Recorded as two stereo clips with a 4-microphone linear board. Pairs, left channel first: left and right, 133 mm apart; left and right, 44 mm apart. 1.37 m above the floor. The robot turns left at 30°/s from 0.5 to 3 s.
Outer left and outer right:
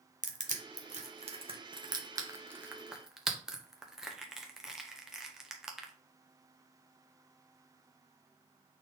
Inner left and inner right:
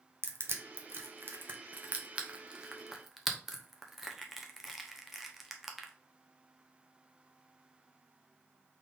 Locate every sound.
0.2 s crushing: 65° right (ahead or behind), 0.8 m; by 5.9 s 5° right (ahead or behind), 0.8 m